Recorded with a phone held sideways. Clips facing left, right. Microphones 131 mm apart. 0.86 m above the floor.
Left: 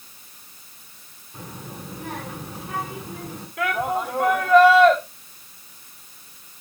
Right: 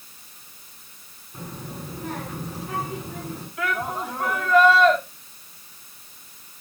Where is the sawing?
No sawing in this recording.